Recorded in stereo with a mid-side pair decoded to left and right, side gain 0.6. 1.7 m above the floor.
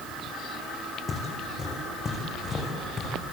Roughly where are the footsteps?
Ahead left.